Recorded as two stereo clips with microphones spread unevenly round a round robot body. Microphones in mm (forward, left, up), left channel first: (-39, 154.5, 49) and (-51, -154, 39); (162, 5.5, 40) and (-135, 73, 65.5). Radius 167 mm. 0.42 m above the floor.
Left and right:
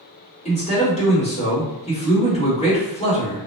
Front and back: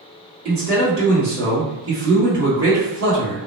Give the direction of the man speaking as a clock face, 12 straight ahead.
7 o'clock.